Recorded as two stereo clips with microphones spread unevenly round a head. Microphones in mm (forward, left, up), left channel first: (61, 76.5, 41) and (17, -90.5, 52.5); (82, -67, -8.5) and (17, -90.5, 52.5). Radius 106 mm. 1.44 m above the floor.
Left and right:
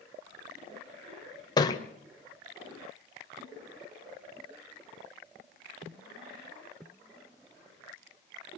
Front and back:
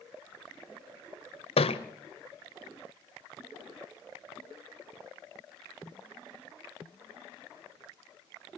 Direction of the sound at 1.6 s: 15° left.